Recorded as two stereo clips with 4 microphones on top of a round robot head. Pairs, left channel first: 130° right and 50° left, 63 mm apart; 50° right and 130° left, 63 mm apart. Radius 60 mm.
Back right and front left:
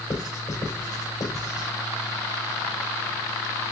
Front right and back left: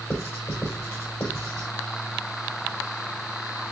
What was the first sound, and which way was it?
Writing, 100° right.